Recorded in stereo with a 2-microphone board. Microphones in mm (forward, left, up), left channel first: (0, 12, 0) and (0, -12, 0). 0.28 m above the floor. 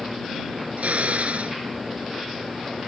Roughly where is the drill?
Right.